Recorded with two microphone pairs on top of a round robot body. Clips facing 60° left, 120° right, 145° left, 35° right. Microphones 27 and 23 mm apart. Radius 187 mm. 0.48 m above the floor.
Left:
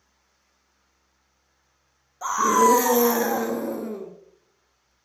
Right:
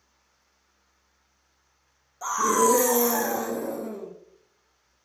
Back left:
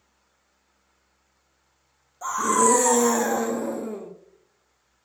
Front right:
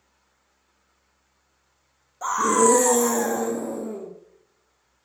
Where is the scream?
5° left, 0.8 m; by 4.1 s 105° left, 1.0 m.